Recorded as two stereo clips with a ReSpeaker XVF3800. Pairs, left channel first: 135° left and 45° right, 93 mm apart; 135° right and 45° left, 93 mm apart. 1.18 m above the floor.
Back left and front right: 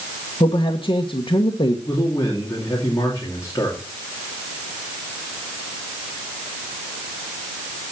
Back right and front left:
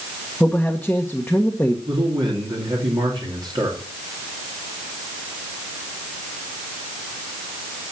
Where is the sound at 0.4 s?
150° left, 1.2 m.